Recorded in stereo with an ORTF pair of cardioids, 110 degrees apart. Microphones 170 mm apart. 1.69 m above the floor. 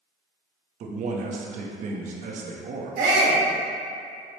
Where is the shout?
60° right, 1.4 m.